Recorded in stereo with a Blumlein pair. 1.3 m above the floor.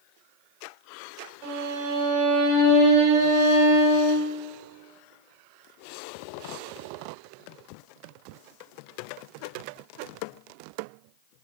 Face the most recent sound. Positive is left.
turn(degrees=-40)